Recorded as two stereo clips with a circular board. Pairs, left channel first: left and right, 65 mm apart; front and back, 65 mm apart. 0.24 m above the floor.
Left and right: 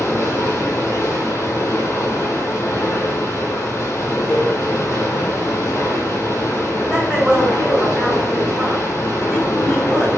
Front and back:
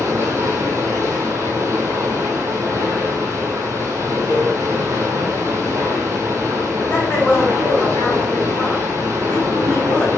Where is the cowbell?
10° right, 1.6 m.